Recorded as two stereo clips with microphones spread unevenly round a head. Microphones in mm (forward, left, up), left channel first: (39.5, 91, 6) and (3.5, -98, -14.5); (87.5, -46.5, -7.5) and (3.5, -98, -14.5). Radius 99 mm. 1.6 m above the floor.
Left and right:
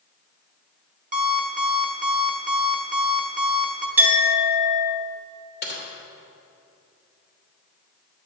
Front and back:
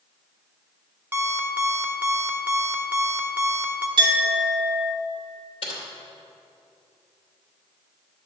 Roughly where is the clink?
Behind.